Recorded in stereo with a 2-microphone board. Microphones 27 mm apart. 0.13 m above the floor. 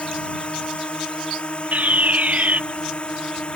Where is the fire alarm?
65° right (ahead or behind).